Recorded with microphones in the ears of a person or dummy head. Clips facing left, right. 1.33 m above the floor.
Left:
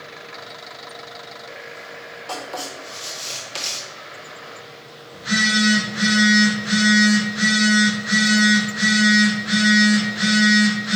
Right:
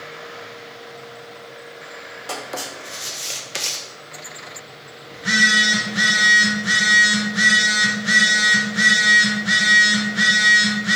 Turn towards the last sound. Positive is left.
turn(degrees=-30)  # may be behind; listen again after turning